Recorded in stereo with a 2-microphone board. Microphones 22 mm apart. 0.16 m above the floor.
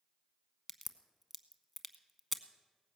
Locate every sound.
0.7 s a crack: centre (ahead or behind), 0.8 m